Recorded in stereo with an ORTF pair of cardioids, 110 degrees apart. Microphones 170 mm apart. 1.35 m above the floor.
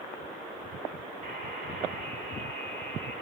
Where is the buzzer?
70° right, 9.5 m.